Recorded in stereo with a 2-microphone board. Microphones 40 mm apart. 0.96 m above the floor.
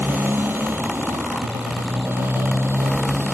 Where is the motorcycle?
65° right (ahead or behind); by 3.3 s 75° right (ahead or behind).